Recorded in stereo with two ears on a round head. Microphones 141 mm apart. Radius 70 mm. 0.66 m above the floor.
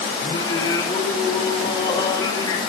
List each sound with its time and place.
0.2 s singing: 25° left (ahead or behind), 3 m